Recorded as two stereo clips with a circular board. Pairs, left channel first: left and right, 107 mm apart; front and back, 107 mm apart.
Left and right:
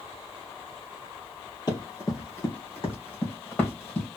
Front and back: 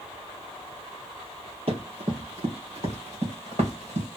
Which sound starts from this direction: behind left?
Running footsteps, at 1.7 s.